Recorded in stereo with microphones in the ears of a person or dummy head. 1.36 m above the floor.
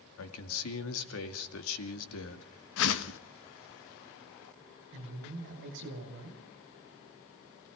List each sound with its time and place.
0.2 s a man speaking: 80° left, 2 m
2.8 s a whoosh: 70° left (ahead or behind), 1.2 m
4.9 s a man speaking: 65° right (ahead or behind), 7.5 m